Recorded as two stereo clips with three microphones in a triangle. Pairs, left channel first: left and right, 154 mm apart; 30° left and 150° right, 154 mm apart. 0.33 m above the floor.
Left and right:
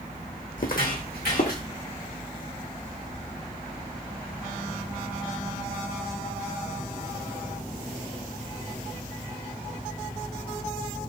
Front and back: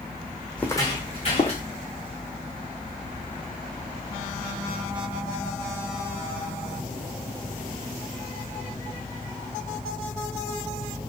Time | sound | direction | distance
0.6 | footsteps | 115° left | 0.9 m